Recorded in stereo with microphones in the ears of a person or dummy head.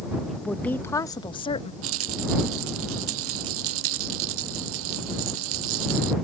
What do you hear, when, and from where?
0.3 s a woman speaking: centre (ahead or behind); by 1.7 s 30° left (ahead or behind)
1.8 s a rattle: 85° right